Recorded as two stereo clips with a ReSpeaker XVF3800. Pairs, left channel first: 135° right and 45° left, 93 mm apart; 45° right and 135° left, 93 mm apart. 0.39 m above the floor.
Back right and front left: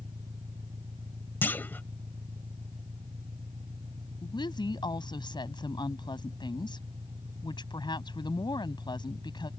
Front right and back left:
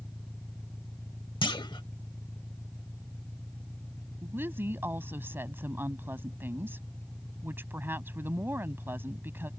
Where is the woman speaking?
160° right.